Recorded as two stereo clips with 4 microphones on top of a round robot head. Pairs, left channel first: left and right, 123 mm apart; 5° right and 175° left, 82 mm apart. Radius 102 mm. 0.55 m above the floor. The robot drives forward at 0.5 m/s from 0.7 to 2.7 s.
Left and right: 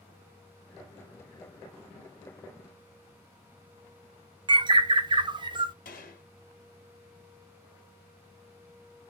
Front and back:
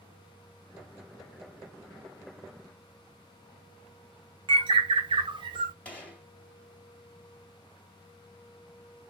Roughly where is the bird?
Behind right.